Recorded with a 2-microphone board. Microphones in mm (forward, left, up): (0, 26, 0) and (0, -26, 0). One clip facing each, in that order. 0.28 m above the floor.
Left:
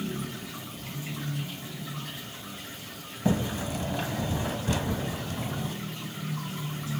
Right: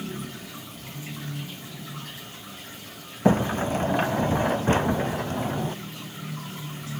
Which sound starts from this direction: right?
A sliding door, at 3.2 s.